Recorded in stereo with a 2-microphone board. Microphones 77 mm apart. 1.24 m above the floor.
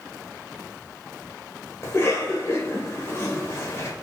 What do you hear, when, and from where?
1.8 s a cough: 35° left (ahead or behind), 0.8 m